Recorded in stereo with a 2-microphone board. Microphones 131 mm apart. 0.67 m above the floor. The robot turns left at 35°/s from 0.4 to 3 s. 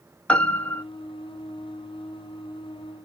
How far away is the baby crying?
I don't hear a baby crying.